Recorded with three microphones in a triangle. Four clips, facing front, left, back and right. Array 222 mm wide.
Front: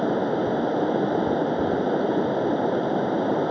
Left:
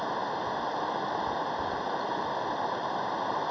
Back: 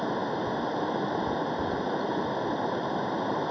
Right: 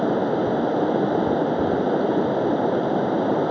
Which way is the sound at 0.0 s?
60° right.